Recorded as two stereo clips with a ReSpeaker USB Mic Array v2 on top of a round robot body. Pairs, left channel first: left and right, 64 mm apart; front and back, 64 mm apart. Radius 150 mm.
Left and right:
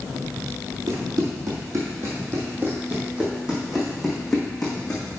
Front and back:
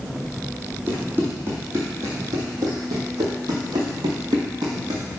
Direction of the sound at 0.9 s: 115° right.